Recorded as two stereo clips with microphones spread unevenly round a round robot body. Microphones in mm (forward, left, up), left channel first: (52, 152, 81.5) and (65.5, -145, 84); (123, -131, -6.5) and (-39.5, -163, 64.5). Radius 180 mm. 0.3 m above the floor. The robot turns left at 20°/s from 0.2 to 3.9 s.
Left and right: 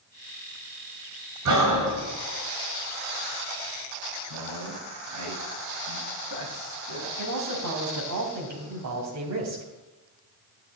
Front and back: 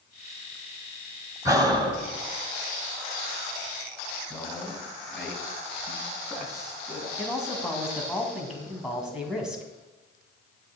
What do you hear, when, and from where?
1.4 s breathing: 85° right, 2 m; by 2.0 s 95° right, 2 m
4.3 s a man speaking: 70° right, 3 m
7.2 s a man speaking: 70° right, 2.5 m